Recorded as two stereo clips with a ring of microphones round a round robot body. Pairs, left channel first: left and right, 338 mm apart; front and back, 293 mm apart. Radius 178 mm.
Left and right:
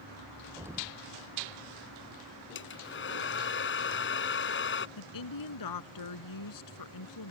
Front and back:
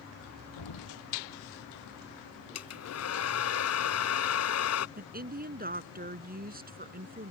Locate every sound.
0.6 s an explosion: 5° right
2.5 s a hair dryer: 35° left
5.0 s a woman speaking: 120° left